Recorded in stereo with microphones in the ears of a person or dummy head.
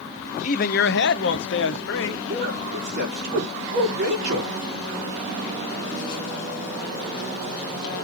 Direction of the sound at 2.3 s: 65° right (ahead or behind).